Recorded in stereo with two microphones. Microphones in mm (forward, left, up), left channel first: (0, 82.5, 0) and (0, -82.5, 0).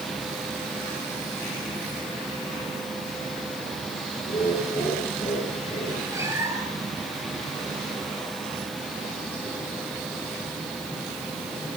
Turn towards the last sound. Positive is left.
turn(degrees=-15)  # may be behind; listen again after turning